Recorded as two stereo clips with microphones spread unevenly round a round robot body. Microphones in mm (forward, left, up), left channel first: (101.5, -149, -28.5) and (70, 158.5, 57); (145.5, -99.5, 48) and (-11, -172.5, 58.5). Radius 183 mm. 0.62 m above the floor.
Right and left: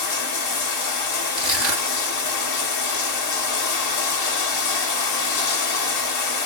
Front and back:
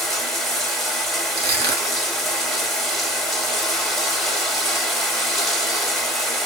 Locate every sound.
0.0 s running water: 65° right, 1.1 m
1.4 s crushing: 165° right, 1.7 m